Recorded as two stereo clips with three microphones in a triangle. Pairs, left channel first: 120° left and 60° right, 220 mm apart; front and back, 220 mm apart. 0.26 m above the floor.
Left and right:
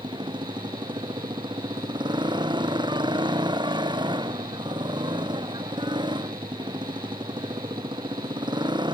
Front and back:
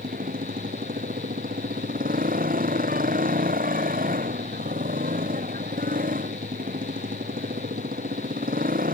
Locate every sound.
0.0 s a motorcycle: 130° right